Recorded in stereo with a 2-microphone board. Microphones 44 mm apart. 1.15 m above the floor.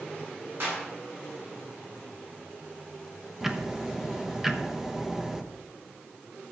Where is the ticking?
10° right (ahead or behind), 1.0 m.